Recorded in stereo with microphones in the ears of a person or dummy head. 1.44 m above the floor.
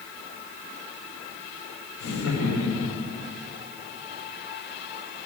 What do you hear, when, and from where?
2.0 s laughter: 85° left, 4.5 m; by 3.1 s 75° left (ahead or behind), 5.5 m